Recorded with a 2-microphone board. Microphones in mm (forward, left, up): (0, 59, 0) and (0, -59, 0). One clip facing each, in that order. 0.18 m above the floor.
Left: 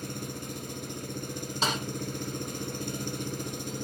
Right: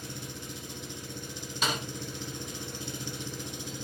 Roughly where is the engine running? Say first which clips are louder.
Left 4 dB; left.